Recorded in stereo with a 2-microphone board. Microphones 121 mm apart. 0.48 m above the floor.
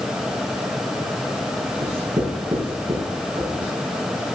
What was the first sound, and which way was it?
Writing, 50° right (ahead or behind).